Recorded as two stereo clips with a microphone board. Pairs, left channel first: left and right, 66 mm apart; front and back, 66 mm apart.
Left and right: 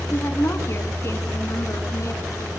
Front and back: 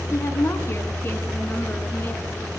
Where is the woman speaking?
35° left, 3 m; by 2.5 s 60° left, 4 m.